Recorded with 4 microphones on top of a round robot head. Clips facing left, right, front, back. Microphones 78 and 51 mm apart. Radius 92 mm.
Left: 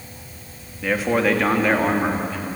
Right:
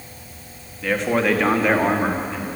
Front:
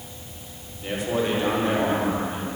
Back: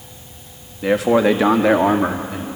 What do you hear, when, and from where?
0.8 s a man speaking: 175° left, 1.8 m; by 2.5 s 175° right, 2.5 m